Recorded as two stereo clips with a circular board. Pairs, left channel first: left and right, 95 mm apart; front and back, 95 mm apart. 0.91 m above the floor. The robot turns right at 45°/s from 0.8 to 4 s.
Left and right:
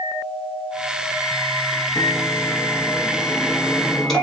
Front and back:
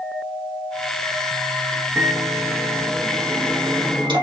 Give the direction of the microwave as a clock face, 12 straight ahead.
9 o'clock.